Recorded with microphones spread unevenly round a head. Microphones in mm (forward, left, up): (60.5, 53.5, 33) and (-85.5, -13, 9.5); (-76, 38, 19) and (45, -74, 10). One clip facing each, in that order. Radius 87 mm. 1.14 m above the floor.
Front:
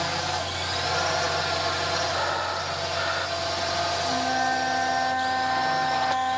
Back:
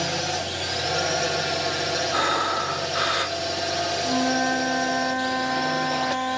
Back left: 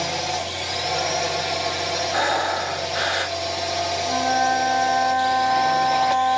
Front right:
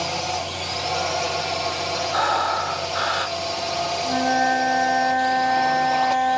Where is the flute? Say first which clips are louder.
Back 5 dB, front right 1 dB; 115° right.